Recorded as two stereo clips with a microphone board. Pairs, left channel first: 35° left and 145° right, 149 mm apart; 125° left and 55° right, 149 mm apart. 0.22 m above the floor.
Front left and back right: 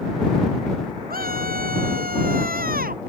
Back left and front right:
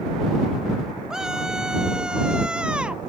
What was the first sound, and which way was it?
A scream, 145° right.